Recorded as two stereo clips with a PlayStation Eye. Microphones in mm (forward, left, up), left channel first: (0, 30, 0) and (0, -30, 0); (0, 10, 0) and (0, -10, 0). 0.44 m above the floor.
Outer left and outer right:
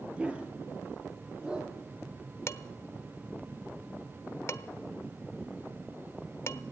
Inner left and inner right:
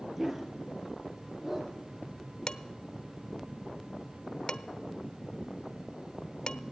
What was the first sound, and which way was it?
A dog barking, 20° right (ahead or behind).